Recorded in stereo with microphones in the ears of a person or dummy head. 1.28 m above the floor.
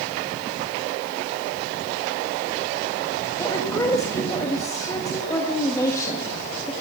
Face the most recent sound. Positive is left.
turn(degrees=15)  # may be behind; listen again after turning